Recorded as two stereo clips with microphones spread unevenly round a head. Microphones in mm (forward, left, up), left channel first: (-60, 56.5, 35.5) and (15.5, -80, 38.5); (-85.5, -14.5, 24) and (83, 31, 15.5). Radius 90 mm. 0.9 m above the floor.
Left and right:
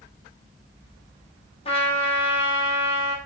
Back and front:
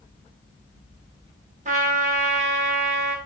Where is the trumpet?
65° left, 3 m.